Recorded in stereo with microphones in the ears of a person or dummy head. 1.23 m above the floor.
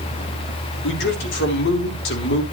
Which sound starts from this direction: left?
A man speaking, at 0.8 s.